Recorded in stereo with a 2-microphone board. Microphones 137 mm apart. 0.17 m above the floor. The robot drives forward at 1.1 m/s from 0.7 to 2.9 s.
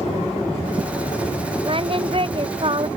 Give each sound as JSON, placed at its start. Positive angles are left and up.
{"t": 1.6, "sound": "singing", "side_deg": -45}